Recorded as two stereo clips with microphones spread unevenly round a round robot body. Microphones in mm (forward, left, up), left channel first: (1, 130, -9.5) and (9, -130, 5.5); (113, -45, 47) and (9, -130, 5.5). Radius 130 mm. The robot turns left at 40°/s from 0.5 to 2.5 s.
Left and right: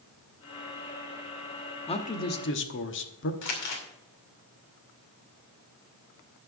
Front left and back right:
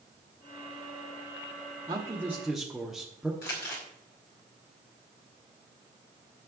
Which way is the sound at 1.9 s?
160° left.